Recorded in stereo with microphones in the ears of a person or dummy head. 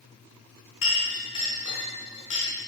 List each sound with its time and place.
0.8 s a clink: 40° left (ahead or behind), 3 m